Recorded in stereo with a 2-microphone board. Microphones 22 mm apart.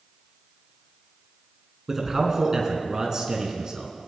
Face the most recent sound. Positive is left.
turn(degrees=-30)  # may be behind; listen again after turning